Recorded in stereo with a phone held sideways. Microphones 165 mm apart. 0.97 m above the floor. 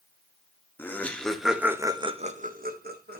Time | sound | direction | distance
0.8 | laughter | 15° left (ahead or behind) | 1.2 m